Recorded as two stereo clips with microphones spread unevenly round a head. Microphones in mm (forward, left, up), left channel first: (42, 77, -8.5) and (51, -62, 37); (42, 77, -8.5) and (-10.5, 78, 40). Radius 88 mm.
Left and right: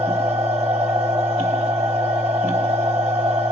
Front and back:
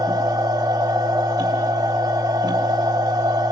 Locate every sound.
0.0 s a machine running: 165° right, 3.5 m